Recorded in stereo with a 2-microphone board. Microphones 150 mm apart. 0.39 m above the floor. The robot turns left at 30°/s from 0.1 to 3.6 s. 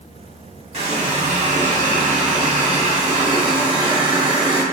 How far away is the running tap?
About 1.1 m.